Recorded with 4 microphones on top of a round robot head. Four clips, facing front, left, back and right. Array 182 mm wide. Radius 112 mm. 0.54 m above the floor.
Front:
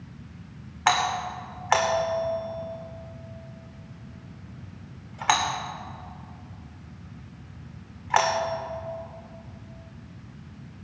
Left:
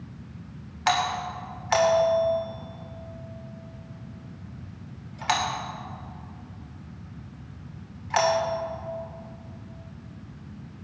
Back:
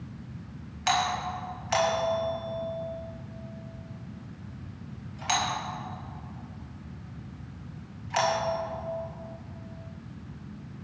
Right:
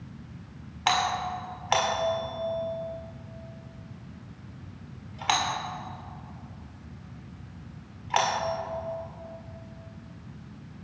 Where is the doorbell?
25° right, 2 m.